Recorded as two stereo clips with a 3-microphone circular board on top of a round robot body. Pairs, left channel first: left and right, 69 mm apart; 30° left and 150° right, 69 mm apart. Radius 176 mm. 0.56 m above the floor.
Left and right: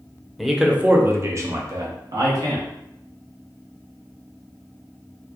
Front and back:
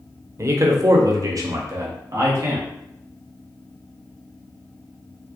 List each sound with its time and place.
0.4 s a man speaking: straight behind, 0.9 m; by 2.7 s 100° right, 1.6 m